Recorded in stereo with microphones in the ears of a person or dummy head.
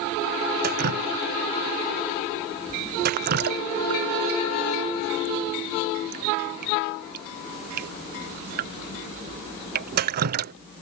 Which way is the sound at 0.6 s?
50° right (ahead or behind).